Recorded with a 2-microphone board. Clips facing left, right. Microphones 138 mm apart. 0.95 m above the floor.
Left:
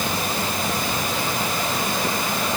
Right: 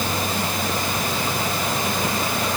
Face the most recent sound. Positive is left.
No sound to turn to.